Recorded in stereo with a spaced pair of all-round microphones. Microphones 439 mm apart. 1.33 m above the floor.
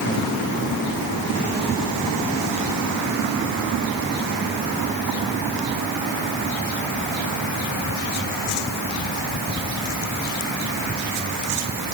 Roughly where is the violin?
I don't hear a violin.